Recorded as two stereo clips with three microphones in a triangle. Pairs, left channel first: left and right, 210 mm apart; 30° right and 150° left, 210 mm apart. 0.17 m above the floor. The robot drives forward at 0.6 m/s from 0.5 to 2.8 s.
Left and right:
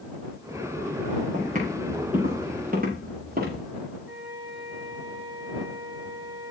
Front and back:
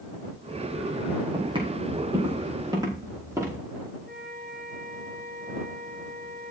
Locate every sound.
1.3 s footsteps: 140° right, 5.5 m; by 3.6 s 135° right, 6 m
4.0 s a flute: 165° right, 5.5 m